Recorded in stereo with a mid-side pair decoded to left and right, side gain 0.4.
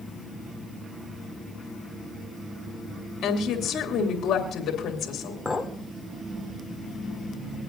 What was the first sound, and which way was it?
A woman speaking, 70° left.